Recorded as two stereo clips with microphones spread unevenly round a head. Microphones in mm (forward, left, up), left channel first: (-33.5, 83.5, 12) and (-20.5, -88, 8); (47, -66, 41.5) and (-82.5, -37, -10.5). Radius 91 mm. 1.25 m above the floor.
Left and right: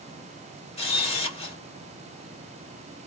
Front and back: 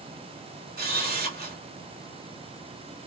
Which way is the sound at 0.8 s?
150° left.